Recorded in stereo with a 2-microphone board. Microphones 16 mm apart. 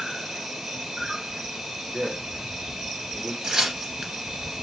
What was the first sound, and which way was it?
An insect, 65° right (ahead or behind).